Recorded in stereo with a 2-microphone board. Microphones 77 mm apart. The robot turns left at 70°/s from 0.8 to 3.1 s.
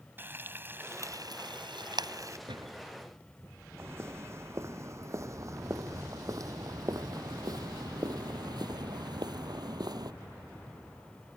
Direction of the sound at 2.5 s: 90° right.